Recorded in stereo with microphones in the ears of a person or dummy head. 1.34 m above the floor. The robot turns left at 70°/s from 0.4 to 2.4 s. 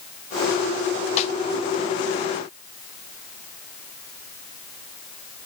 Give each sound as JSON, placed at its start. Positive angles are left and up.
{"t": 1.2, "sound": "a snare drum", "side_deg": 40, "distance_m": 0.9}